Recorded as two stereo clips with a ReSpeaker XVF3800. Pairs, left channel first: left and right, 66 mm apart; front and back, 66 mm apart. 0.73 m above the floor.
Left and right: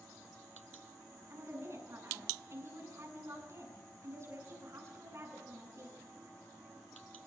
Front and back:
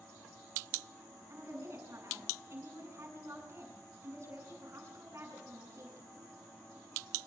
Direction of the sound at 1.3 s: 135° right.